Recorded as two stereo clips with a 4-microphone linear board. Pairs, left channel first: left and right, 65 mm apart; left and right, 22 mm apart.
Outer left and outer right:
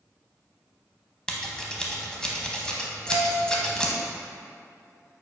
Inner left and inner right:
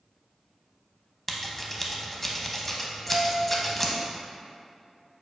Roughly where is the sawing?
I don't hear sawing.